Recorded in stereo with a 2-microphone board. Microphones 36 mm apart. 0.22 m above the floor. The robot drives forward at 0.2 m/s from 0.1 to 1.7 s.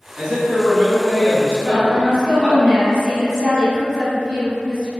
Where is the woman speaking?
10° right (ahead or behind), 1.0 m.